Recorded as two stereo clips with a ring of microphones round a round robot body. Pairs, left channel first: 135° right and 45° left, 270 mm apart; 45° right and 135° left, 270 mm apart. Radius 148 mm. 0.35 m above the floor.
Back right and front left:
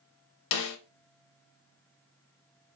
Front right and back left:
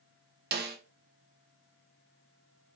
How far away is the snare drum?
About 0.6 m.